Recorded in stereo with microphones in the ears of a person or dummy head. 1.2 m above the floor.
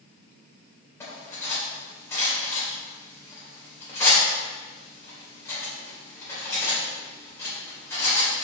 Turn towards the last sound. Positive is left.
turn(degrees=15)  # may be behind; listen again after turning